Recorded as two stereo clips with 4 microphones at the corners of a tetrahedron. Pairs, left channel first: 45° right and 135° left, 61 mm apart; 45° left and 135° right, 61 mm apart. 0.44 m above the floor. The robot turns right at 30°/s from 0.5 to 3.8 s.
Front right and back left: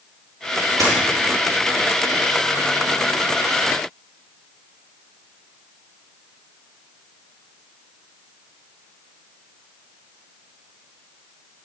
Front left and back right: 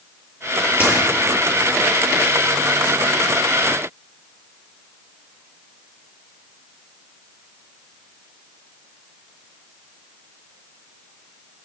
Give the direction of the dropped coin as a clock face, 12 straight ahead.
7 o'clock.